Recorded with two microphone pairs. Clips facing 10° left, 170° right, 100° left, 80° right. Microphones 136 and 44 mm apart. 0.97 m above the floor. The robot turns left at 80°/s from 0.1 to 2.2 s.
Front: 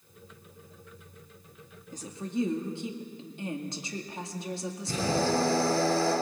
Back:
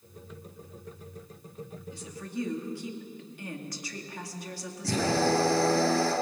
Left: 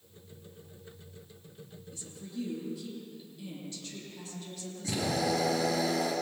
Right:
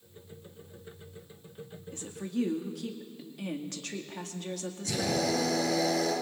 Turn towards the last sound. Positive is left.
turn(degrees=170)